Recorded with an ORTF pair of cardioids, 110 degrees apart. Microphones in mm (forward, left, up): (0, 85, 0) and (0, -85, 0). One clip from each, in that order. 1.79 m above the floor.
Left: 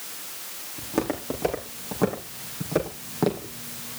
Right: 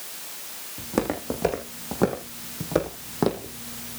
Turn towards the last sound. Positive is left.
turn(degrees=-20)